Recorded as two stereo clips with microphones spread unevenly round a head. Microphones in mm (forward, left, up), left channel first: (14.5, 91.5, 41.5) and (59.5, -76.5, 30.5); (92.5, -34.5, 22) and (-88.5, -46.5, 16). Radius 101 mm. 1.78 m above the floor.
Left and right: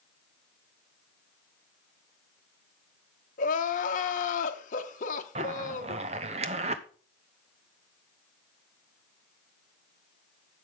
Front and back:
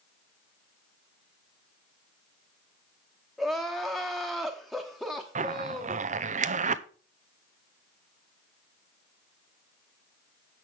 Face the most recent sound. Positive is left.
turn(degrees=-135)